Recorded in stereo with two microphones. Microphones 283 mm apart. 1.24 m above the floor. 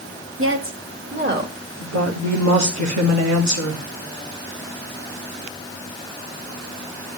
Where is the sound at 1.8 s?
70° right (ahead or behind), 2.5 m.